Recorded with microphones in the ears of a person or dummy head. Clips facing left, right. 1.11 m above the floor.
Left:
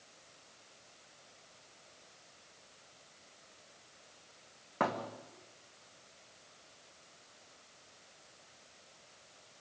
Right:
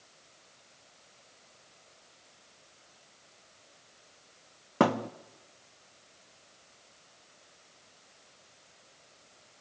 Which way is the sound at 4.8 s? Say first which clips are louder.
Right 9 dB; 45° right (ahead or behind).